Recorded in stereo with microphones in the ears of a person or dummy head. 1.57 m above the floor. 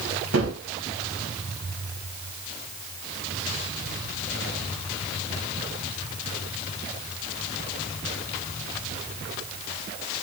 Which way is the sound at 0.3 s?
85° right.